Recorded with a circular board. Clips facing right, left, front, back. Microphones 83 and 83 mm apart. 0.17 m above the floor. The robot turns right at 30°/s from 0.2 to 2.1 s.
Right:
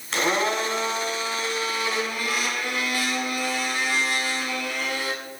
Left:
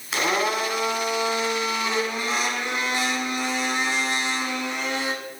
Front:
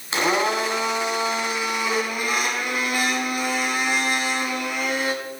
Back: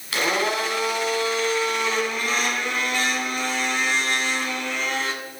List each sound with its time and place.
0.1 s a blender: 10° left, 1.4 m; by 5.1 s 65° left, 1.4 m